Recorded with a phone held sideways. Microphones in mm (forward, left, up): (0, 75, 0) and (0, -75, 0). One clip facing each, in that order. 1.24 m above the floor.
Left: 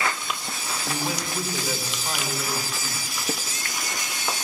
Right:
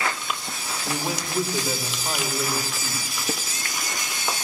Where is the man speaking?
20° right (ahead or behind), 3.5 m.